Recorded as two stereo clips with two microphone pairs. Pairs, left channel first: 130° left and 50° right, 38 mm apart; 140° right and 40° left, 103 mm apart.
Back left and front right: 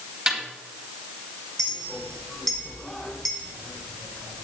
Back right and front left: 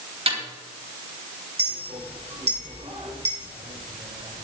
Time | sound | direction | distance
0.3 | a snare drum | 10° left | 3.5 m
1.6 | a clink | 50° left | 2 m